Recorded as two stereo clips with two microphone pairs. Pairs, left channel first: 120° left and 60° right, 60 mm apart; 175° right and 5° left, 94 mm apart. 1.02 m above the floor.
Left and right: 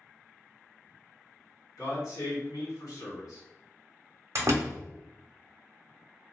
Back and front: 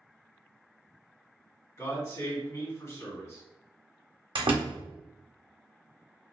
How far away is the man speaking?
About 1.9 m.